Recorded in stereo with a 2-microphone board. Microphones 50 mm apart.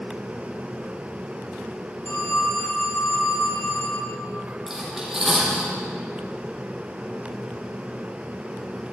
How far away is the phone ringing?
About 7.5 m.